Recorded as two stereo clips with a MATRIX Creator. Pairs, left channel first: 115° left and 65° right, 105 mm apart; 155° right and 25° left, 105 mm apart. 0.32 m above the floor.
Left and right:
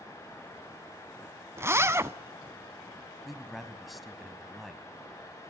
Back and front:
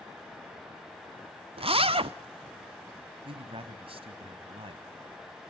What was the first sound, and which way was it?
A zipper, 5° right.